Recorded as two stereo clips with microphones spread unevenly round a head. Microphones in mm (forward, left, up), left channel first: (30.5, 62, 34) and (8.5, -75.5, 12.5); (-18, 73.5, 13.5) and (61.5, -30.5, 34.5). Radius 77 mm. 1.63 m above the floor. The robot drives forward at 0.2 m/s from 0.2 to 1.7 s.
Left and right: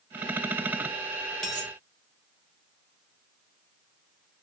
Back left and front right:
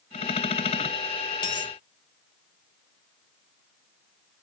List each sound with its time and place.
1.4 s a dropped coin: 135° left, 0.9 m; by 1.7 s 145° left, 0.9 m